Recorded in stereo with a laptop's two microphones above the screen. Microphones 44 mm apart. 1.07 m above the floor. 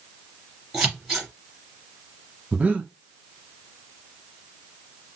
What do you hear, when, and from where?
0.7 s scissors: 10° right (ahead or behind), 1.9 m
2.5 s breathing: 30° right (ahead or behind), 0.8 m